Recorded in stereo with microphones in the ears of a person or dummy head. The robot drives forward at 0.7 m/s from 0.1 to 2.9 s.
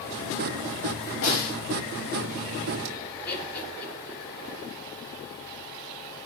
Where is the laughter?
65° left (ahead or behind), 3.5 m.